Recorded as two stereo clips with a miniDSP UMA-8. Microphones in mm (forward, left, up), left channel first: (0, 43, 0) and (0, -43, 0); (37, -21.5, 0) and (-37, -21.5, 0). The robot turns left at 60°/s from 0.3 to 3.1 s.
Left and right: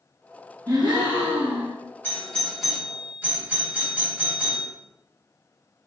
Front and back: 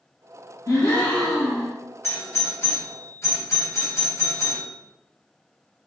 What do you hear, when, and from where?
0.7 s a gasp: 40° right, 1.3 m; by 1.8 s 105° right, 1.3 m
2.0 s a doorbell: 35° left, 1.7 m; by 4.7 s 30° right, 1.7 m